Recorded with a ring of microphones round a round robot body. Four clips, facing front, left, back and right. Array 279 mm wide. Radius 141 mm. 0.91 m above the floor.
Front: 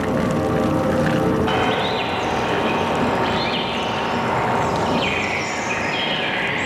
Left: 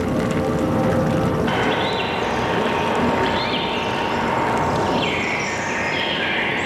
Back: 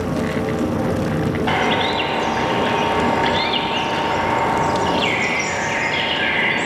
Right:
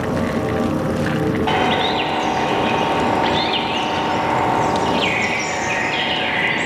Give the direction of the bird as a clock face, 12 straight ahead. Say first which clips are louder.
Right 2 dB, back 1 dB; 4 o'clock.